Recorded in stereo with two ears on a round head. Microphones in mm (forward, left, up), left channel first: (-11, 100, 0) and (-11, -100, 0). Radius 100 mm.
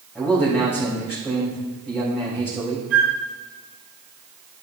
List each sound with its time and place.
0.1 s a man speaking: 5° right (ahead or behind), 4 m
2.9 s a flute: 40° right (ahead or behind), 3.5 m